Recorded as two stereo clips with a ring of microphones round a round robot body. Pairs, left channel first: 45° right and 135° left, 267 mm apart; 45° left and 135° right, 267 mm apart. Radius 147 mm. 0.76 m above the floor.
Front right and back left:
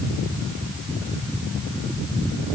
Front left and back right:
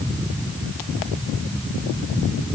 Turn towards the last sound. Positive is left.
No sound to turn to.